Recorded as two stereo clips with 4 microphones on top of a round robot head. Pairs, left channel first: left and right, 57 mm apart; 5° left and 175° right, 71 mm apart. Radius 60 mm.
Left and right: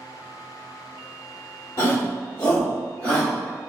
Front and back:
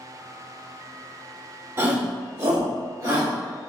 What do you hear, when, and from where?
1.8 s a shout: 135° left, 1.6 m; by 3.3 s 170° left, 2 m